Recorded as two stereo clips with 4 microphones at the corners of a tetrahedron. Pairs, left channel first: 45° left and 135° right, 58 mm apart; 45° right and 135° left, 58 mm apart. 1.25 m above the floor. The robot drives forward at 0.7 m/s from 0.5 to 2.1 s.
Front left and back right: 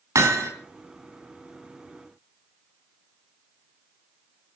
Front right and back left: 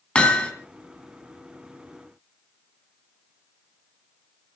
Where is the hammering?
115° right, 3 m.